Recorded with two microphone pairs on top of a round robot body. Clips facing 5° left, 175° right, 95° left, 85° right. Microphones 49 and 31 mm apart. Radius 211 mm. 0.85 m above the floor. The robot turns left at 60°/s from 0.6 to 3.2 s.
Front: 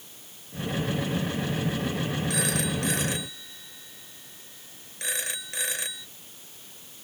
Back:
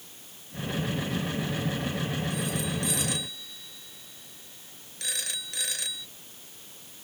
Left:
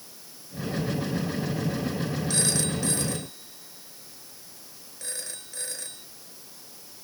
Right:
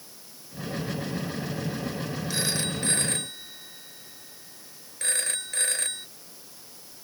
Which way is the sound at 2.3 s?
10° right.